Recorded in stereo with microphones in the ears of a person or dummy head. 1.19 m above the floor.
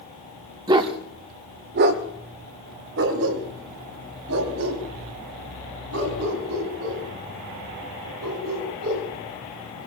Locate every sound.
0.7 s a dog barking: 20° right (ahead or behind), 1.1 m; by 9.1 s 85° right, 6.5 m